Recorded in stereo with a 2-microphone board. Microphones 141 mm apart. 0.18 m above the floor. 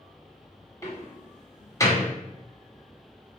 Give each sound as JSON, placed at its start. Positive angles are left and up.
{"t": 0.8, "sound": "a door slam", "side_deg": 20, "distance_m": 0.9}